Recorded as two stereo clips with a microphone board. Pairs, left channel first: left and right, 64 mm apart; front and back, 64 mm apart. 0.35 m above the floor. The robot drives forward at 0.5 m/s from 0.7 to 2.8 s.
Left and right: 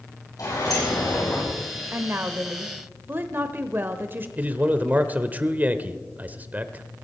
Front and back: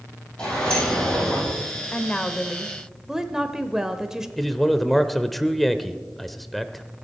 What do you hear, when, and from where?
0.4 s a sliding door: 75° left, 7.5 m; by 1.5 s 80° left, 7.5 m
1.9 s a woman speaking: 60° right, 1.0 m; by 4.3 s 105° right, 1.0 m
4.4 s a man speaking: 85° right, 0.9 m